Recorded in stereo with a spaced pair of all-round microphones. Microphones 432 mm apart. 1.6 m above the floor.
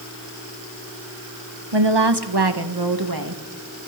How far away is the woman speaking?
About 1.5 m.